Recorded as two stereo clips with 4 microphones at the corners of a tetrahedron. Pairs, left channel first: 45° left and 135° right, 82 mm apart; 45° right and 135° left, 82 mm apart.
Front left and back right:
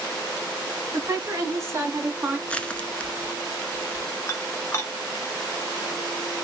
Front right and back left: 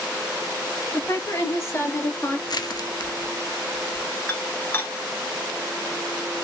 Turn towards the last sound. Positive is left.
turn(degrees=10)